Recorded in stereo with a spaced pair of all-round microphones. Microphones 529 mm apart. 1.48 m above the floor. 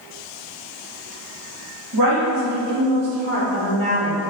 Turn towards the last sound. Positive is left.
turn(degrees=-70)  # may be behind; listen again after turning